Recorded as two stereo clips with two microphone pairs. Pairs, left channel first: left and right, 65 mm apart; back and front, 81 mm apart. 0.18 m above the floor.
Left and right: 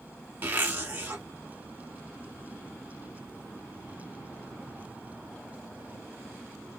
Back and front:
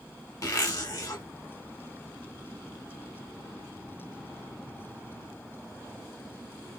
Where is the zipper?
150° right, 0.8 m.